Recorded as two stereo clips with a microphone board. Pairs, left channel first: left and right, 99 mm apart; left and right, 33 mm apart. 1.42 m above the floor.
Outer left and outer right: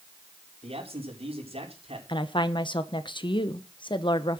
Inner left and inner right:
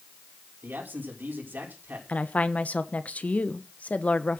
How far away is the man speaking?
About 5 m.